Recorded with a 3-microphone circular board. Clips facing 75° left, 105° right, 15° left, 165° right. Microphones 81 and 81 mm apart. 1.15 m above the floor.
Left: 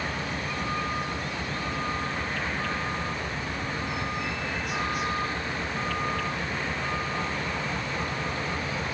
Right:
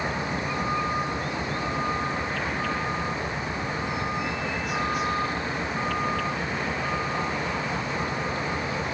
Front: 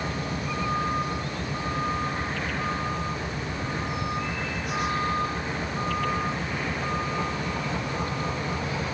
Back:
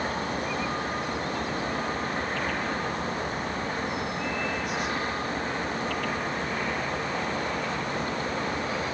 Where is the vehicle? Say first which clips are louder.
Right 3 dB, back 1 dB; 35° right; by 8.9 s 25° right.